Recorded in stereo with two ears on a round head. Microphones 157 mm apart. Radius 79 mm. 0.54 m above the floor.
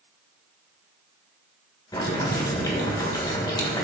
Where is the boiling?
20° left (ahead or behind), 2 m.